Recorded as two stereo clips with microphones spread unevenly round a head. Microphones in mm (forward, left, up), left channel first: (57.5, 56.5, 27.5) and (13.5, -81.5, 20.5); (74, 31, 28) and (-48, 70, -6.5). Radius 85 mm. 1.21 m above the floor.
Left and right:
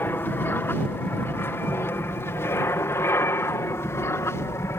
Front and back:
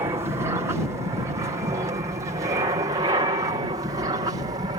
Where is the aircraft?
140° left.